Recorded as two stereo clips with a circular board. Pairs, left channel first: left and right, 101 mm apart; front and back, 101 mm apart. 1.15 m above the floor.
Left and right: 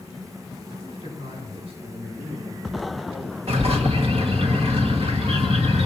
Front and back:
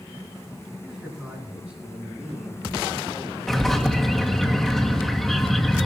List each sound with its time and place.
0.8 s a man speaking: 100° right, 9.5 m; by 3.4 s 115° right, 7 m
3.5 s a bird: 90° right, 1.8 m